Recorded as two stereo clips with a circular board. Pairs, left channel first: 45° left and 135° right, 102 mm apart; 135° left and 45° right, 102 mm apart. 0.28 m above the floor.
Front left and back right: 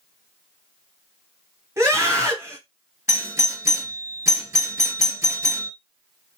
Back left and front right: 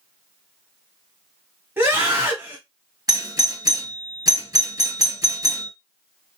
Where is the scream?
95° right, 1.4 m.